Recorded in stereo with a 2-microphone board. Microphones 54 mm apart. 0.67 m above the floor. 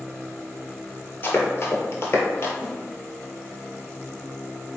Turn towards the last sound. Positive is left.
turn(degrees=-10)  # may be behind; listen again after turning